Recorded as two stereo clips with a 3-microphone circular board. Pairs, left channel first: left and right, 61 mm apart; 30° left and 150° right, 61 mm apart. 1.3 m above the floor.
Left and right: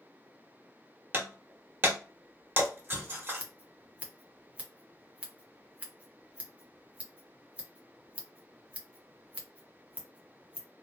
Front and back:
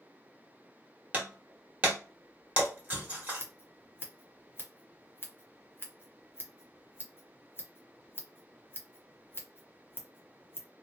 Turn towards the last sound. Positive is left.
turn(degrees=-20)